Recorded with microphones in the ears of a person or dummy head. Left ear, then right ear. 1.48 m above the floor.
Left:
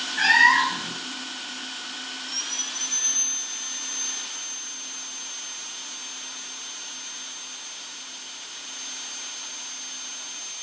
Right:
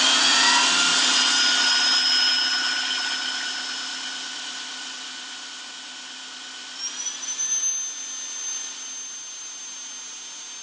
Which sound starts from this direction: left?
A cat meowing, at 0.2 s.